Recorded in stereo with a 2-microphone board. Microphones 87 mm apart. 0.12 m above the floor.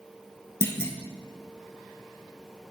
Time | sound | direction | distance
0.6 | a clunk | 35° left (ahead or behind) | 1.0 m